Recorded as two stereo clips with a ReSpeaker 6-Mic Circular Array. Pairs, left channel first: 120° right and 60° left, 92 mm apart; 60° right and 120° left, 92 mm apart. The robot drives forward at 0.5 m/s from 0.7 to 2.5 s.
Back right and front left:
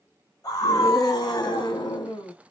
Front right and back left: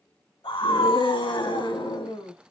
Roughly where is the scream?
Right.